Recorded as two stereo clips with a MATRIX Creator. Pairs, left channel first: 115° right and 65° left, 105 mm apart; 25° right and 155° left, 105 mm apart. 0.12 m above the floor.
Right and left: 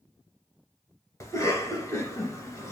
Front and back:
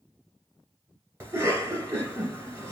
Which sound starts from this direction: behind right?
A cough, at 1.2 s.